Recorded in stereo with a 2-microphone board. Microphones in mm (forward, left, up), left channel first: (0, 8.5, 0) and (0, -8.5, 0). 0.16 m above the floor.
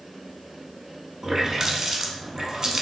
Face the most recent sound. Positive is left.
turn(degrees=-30)  # may be behind; listen again after turning